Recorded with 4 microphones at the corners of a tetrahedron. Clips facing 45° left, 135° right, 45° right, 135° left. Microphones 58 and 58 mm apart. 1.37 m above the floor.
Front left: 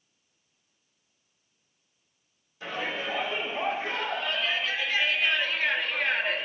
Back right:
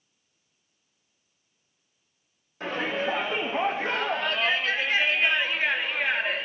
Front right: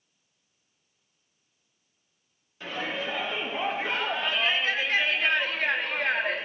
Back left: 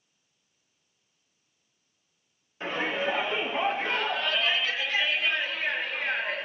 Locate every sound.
2.6 s a shout: 160° right, 2.5 m; by 6.5 s 50° right, 2.5 m